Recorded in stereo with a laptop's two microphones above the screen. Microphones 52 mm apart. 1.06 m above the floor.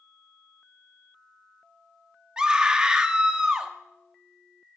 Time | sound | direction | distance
2.4 | a scream | 15° right (ahead or behind) | 1.5 m